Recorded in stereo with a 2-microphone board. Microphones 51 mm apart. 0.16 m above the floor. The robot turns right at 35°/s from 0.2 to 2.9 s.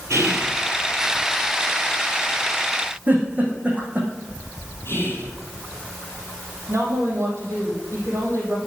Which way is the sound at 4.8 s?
50° left (ahead or behind).